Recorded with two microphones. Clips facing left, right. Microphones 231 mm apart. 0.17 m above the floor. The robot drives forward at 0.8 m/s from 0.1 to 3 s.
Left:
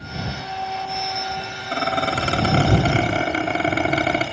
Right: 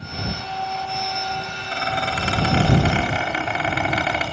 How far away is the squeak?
About 3.5 m.